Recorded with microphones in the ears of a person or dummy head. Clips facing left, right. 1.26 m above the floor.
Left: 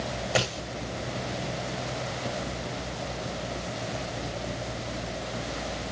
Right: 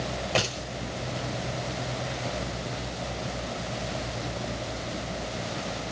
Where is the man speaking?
I don't hear a man speaking.